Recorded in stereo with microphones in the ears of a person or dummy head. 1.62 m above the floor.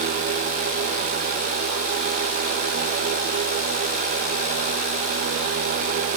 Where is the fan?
50° right (ahead or behind), 1.0 m.